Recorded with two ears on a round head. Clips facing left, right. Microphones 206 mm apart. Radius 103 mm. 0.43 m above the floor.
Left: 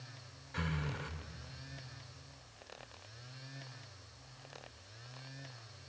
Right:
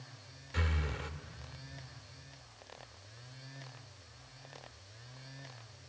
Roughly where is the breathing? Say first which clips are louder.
Even; right.